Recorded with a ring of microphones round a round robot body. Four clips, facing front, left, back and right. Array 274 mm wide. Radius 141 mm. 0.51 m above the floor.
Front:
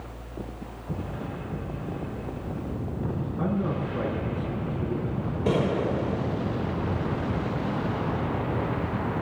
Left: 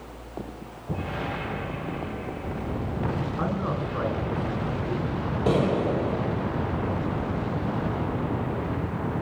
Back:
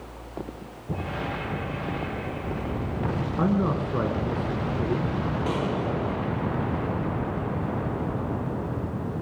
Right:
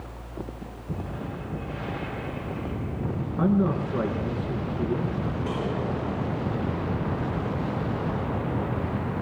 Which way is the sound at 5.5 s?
65° left.